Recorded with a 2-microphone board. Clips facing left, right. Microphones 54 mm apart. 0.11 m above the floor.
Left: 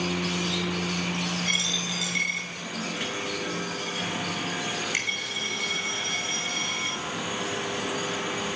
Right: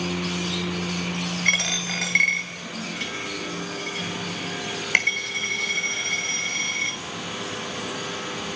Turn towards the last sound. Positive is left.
turn(degrees=-65)  # may be behind; listen again after turning